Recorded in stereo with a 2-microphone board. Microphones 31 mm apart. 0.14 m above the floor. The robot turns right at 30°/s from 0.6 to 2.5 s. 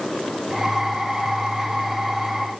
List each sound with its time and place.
Only background noise.